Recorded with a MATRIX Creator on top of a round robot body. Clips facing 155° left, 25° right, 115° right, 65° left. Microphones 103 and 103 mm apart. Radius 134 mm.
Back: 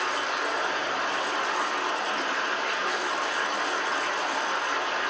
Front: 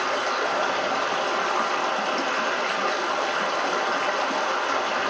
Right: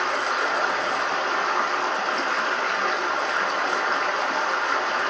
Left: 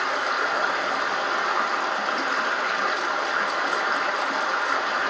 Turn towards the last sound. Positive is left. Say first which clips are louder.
# front 4 dB, right 1 dB
turn(degrees=-20)